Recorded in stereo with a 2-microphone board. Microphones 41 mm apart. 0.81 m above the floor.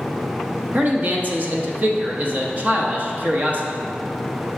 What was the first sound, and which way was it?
A man speaking, 40° right (ahead or behind).